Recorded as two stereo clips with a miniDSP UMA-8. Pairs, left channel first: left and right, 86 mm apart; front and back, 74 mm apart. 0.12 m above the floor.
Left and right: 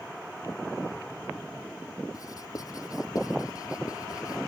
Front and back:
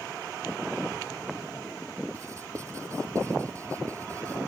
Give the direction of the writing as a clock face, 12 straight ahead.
8 o'clock.